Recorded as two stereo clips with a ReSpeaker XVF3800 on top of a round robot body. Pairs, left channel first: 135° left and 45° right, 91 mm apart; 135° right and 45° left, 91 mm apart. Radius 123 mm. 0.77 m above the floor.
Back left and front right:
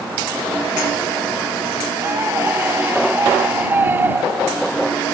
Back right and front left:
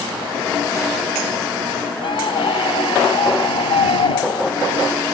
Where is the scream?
110° right; by 4.7 s 115° right.